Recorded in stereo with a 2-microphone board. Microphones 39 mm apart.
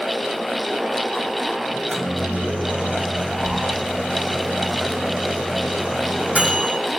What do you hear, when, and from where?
1.7 s a microwave: 35° right (ahead or behind), 4.5 m